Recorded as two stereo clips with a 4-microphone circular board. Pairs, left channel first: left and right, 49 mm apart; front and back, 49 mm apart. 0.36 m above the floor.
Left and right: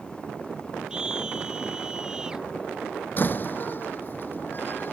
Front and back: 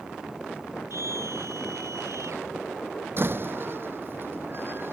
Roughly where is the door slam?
Behind left.